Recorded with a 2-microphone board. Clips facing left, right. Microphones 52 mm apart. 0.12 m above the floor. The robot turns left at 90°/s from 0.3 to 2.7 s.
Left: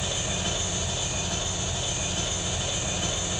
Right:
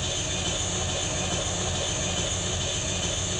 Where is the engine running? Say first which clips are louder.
Left 1 dB; 10° left, 2 m; by 3.4 s 155° left, 2 m.